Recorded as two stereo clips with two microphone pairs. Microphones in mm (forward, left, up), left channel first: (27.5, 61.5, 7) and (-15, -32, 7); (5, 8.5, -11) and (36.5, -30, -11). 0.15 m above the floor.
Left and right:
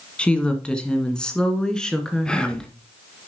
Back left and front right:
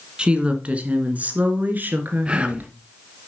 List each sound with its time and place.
0.2 s a woman speaking: 5° right, 1.7 m; by 2.7 s 15° right, 2.5 m
2.2 s whispering: 5° right, 1.3 m